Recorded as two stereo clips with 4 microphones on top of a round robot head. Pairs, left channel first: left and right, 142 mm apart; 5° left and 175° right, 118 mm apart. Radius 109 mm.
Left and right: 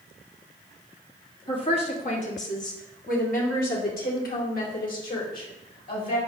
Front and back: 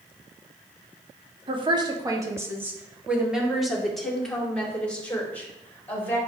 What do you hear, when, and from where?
1.5 s a woman speaking: 145° left, 1.6 m; by 6.2 s 80° left, 4 m